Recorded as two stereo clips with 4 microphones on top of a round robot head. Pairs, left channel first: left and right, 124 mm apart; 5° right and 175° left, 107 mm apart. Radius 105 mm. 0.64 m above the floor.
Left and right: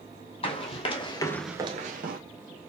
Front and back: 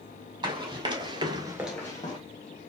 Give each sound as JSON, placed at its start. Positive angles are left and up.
{"t": 0.4, "sound": "running footsteps", "azimuth_deg": 125, "distance_m": 1.8}